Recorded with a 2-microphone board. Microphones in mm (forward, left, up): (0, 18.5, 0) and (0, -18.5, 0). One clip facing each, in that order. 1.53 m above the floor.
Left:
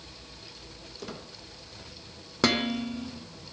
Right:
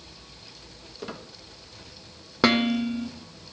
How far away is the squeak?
About 0.9 m.